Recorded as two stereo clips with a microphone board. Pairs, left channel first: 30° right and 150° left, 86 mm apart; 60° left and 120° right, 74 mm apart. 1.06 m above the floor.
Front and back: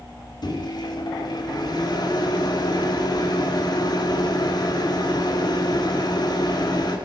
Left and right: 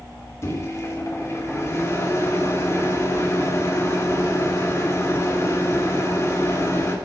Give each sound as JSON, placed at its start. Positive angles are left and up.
{"t": 0.4, "sound": "a microwave", "azimuth_deg": 5, "distance_m": 2.5}